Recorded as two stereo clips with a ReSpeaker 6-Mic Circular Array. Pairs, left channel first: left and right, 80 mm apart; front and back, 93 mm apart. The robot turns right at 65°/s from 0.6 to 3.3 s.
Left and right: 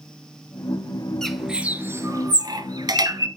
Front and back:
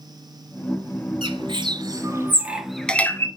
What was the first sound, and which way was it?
A bird, 170° left.